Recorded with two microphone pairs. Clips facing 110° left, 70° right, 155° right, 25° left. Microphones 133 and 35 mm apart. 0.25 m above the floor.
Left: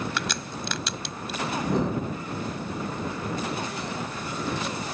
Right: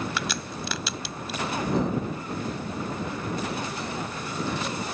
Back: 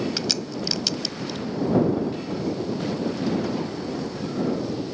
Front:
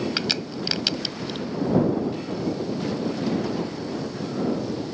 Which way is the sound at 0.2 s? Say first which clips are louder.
Even, front 1 dB; 15° left.